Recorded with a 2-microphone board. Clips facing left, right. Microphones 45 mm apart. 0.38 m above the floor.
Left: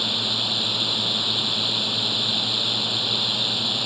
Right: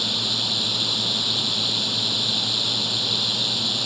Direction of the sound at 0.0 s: 15° left (ahead or behind).